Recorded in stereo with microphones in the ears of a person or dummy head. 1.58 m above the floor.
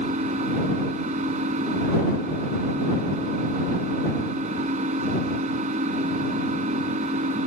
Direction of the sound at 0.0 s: 45° right (ahead or behind).